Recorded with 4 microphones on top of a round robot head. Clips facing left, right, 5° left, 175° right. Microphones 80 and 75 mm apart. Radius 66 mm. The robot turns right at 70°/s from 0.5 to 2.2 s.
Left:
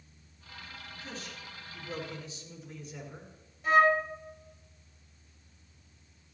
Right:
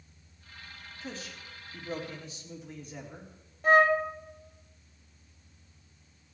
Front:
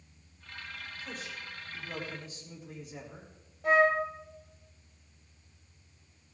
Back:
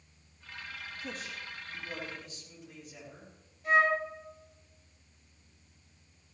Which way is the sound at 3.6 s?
50° right.